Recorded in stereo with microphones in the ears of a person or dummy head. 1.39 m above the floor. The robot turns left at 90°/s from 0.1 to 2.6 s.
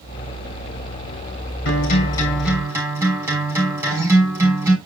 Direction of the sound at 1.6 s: 70° left.